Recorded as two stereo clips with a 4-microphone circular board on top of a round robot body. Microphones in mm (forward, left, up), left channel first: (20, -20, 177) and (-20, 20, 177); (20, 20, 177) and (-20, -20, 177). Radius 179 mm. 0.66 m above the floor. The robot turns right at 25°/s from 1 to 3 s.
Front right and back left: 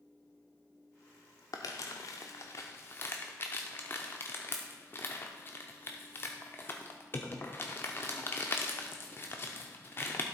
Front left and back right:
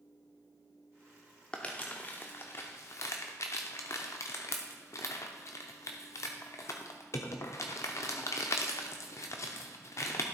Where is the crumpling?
30° right, 0.5 m; by 10.2 s 10° left, 0.5 m.